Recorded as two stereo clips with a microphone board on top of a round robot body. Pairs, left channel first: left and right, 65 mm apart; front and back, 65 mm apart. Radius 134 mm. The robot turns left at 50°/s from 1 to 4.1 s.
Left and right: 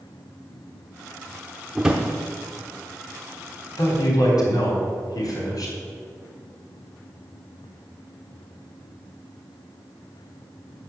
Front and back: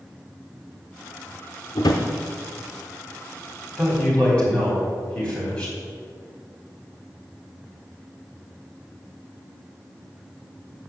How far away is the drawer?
About 0.7 m.